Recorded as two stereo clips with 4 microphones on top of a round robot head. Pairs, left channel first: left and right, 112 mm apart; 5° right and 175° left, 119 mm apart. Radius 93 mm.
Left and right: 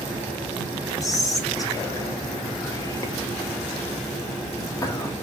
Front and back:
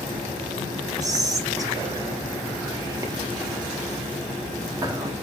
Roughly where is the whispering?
Behind left.